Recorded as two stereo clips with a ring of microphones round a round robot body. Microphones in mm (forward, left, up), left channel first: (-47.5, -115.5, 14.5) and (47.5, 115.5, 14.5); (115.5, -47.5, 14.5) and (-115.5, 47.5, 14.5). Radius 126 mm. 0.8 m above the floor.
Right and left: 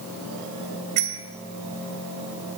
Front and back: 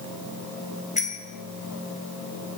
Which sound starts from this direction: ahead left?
A bicycle bell, at 1.0 s.